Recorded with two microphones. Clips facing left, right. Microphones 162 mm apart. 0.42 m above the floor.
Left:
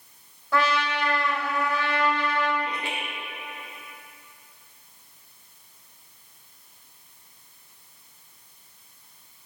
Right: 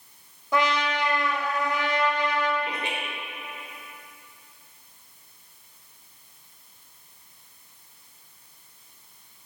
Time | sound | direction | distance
0.5 | a trumpet | 20° right (ahead or behind) | 1.3 m
2.6 | laughter | 20° right (ahead or behind) | 1.3 m